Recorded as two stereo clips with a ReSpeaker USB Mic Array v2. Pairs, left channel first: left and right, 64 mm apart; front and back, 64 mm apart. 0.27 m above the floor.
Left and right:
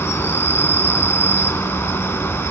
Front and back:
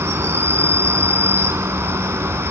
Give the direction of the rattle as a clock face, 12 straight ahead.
I don't hear a rattle.